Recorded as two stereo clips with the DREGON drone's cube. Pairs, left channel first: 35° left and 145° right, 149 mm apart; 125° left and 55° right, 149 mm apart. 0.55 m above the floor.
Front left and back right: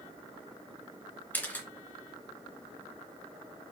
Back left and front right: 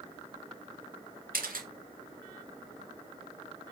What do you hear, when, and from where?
1.3 s a camera shutter: 45° right, 2 m